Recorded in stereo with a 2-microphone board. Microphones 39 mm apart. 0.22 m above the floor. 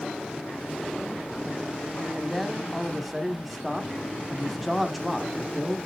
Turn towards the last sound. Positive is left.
turn(degrees=0)  # may be behind; listen again after turning